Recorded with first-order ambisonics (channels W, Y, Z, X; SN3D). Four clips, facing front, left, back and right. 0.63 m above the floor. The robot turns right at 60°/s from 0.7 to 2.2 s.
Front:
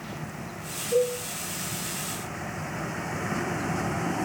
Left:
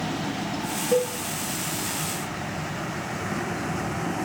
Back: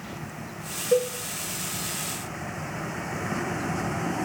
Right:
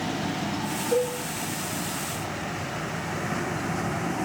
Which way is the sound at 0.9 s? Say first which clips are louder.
Left 2 dB, back 1 dB; 165° left.